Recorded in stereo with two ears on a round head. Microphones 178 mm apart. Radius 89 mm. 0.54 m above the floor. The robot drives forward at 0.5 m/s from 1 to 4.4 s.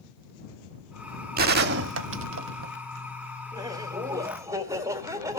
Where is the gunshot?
45° right (ahead or behind), 0.8 m; by 2.7 s 65° right (ahead or behind), 0.6 m.